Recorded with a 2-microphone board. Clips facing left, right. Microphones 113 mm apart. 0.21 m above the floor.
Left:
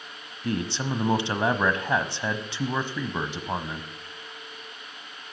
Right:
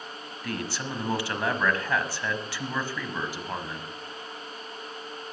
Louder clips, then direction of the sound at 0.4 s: Left 5 dB; 25° left (ahead or behind).